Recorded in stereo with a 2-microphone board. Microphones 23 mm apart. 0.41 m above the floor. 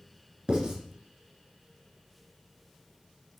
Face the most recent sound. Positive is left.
turn(degrees=-40)  # may be behind; listen again after turning